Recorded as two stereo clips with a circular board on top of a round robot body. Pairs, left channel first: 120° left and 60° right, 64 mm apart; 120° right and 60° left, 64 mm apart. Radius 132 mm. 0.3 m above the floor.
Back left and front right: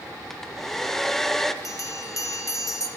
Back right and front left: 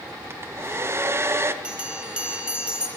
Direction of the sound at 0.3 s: 35° left.